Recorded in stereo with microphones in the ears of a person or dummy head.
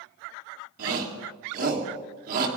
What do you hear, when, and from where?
0.8 s a shout: 50° right (ahead or behind), 3 m